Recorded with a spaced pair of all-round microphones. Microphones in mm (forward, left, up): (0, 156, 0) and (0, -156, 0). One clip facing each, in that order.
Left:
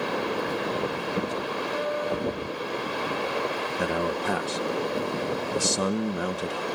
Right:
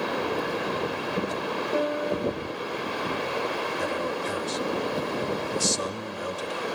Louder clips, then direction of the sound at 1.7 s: Right 3 dB; 60° right (ahead or behind).